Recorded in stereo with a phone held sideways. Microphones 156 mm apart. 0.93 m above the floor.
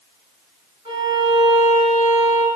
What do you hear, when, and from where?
0.8 s a violin: 35° right (ahead or behind), 2 m